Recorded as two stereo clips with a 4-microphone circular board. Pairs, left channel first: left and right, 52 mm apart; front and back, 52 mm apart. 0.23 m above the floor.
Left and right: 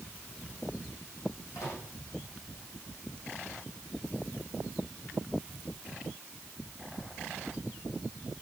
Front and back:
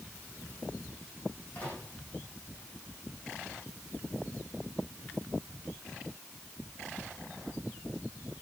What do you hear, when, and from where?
1.6 s a microwave: 65° left, 9 m